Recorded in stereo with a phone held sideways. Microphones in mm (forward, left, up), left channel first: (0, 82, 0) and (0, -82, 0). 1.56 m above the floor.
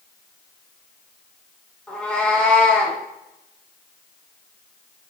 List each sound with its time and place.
1.9 s a cat meowing: 10° left (ahead or behind), 3.5 m